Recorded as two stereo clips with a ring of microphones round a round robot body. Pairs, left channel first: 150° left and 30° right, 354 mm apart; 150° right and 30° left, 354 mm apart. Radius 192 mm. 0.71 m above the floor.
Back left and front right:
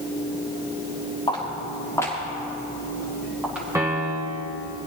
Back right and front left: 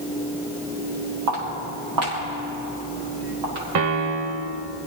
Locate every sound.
1.3 s footsteps: 75° left, 5.5 m; by 3.6 s 55° left, 6.5 m
3.8 s a piano: 55° left, 1.0 m